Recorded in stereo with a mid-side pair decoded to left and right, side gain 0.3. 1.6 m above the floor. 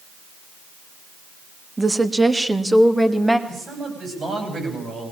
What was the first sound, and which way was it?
A woman speaking, 30° right.